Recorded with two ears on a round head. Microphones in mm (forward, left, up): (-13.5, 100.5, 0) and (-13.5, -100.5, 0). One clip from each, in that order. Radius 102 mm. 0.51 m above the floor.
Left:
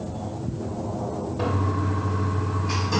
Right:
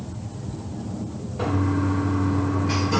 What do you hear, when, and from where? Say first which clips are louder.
1.4 s a toilet flushing: right 4 dB; centre (ahead or behind), 1.2 m